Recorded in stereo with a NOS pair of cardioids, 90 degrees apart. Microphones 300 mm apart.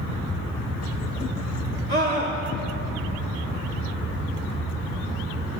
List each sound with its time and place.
1.9 s a scream: 30° right, 2.0 m